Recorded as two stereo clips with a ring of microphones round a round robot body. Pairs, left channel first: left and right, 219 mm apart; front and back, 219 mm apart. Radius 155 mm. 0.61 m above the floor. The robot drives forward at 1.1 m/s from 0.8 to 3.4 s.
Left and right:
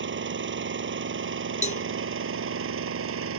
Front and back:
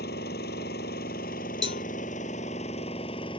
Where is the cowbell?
35° left.